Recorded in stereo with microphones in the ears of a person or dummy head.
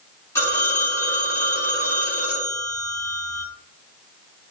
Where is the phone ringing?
10° left (ahead or behind), 1.2 m.